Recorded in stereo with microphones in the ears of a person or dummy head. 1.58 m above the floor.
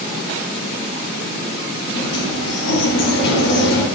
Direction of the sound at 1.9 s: 70° left (ahead or behind).